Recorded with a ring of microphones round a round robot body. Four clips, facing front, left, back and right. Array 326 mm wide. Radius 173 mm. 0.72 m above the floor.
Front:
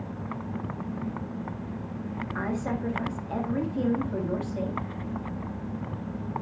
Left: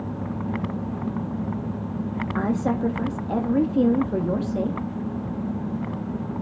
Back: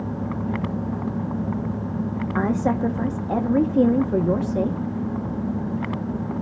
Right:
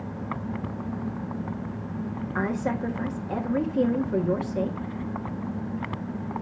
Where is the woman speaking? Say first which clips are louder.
Left 3 dB, back 9 dB; 160° left, 1.5 m.